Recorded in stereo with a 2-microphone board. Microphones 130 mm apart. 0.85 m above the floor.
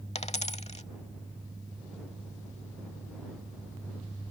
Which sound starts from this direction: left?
A dropped coin, at 0.1 s.